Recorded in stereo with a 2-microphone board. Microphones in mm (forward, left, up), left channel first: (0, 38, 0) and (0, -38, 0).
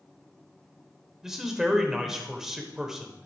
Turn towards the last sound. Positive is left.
turn(degrees=-5)  # may be behind; listen again after turning